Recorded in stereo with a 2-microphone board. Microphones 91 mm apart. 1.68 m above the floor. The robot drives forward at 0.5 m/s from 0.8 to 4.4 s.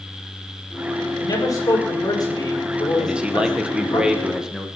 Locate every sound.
1.2 s a man speaking: 40° left (ahead or behind), 5.5 m; by 4.0 s 55° left (ahead or behind), 4.5 m
3.0 s a man speaking: 10° right (ahead or behind), 1.5 m